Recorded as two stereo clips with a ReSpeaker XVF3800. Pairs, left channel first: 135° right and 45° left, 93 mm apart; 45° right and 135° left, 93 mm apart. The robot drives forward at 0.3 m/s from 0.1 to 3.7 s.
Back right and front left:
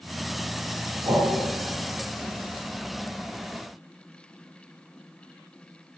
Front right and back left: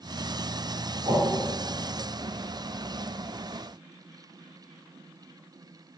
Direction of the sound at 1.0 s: 65° left.